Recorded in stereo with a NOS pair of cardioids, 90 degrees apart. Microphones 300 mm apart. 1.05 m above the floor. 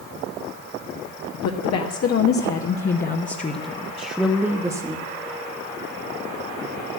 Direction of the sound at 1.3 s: 70° left.